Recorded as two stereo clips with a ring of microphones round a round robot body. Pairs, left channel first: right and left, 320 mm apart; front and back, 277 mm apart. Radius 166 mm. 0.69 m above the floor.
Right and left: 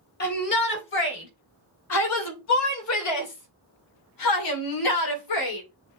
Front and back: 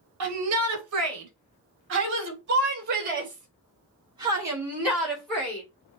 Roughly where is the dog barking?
No dog barking in this recording.